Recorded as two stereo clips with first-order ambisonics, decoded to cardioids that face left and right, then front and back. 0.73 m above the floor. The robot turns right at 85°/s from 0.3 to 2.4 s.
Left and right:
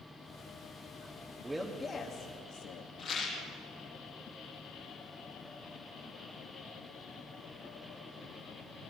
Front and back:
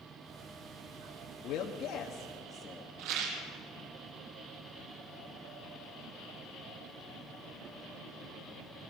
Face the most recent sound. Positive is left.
turn(degrees=165)